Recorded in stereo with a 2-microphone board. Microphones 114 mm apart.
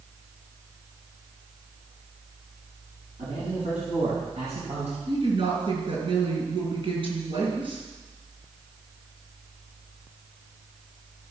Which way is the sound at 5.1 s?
50° right (ahead or behind).